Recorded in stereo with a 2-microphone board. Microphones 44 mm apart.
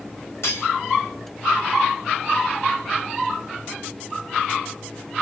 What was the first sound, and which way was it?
Cutlery clinking, 85° left.